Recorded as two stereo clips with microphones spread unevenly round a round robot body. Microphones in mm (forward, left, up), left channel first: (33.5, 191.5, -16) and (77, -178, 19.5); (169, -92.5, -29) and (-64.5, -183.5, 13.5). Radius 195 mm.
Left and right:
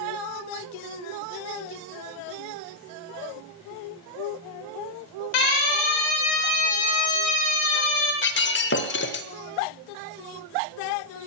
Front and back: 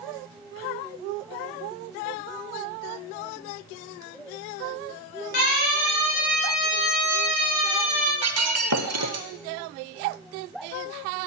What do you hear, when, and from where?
5.3 s a siren: 90° left, 7 m
8.2 s breaking glass: 155° left, 0.7 m